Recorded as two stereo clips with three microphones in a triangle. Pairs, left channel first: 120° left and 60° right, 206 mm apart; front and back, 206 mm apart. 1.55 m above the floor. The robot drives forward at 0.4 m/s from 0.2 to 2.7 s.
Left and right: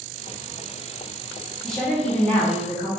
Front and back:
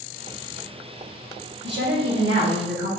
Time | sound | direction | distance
1.6 | a woman speaking | 150° right | 1.0 m